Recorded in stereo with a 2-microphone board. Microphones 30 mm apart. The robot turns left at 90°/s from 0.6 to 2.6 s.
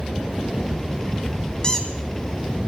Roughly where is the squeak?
Left.